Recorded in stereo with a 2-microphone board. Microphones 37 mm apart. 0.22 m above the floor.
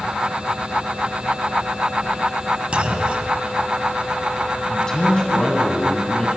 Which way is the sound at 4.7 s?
20° left (ahead or behind).